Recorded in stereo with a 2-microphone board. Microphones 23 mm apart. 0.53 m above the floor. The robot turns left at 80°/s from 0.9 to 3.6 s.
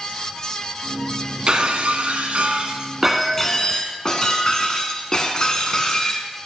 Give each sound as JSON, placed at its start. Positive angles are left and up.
{"t": 1.5, "sound": "breaking glass", "azimuth_deg": -40, "distance_m": 1.4}